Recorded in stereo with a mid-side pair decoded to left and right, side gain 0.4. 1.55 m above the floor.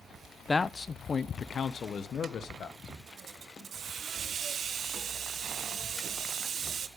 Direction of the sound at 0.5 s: 30° left.